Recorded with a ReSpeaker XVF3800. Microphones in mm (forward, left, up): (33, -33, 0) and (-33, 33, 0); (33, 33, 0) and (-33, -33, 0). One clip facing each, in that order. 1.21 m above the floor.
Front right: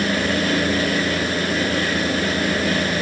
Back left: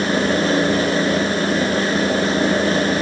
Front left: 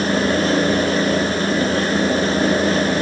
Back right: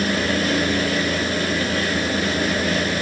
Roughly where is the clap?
No clap in this recording.